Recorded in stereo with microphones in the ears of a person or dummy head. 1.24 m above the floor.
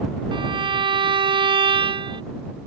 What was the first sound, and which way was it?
A violin, 25° right (ahead or behind).